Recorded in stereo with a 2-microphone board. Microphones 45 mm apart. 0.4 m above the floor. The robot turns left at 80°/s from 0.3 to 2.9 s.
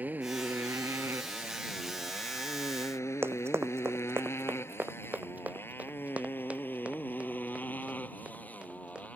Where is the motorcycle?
40° right (ahead or behind); by 9.2 s 30° left (ahead or behind).